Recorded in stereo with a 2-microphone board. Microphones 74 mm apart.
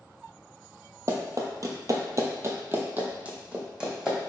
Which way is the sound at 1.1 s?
45° right (ahead or behind).